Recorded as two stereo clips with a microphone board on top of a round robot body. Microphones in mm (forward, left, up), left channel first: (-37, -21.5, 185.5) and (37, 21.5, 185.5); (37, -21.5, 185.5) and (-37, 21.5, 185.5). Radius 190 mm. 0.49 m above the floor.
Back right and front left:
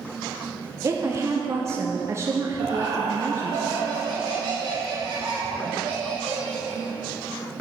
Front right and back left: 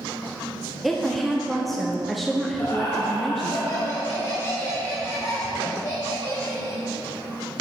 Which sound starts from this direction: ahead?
Laughter, at 2.6 s.